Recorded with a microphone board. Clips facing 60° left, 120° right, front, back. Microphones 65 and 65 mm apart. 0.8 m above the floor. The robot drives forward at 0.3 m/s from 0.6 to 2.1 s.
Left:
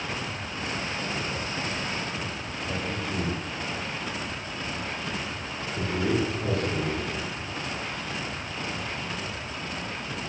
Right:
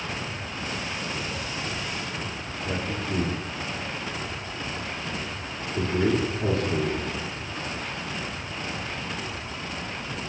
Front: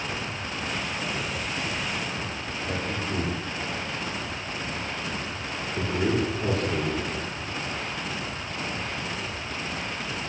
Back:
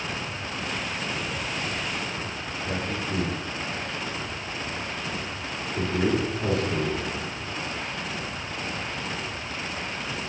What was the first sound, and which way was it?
A man speaking, 95° right.